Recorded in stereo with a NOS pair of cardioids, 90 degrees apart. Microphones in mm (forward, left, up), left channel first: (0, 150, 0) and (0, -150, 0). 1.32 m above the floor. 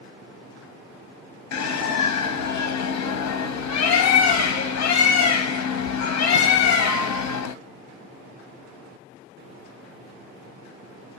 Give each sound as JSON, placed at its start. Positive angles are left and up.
{"t": 1.5, "sound": "a bird", "azimuth_deg": 65, "distance_m": 0.8}